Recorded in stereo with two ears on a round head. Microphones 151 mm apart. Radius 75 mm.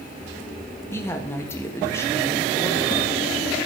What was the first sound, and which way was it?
A woman speaking, 15° left (ahead or behind).